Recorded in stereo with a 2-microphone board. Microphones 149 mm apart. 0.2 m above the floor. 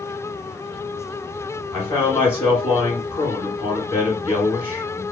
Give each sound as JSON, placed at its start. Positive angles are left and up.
{"t": 1.7, "sound": "a man speaking", "side_deg": 15, "distance_m": 1.2}